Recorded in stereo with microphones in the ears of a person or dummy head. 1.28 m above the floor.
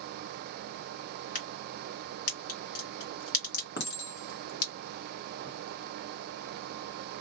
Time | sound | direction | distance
1.4 | a crack | 55° left (ahead or behind) | 2 m
3.8 | a clink | 70° left (ahead or behind) | 1.2 m